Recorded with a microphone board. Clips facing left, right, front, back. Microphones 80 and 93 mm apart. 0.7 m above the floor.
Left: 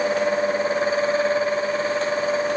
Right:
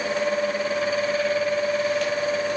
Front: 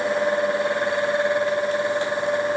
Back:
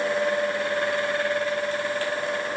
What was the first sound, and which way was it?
Only background noise.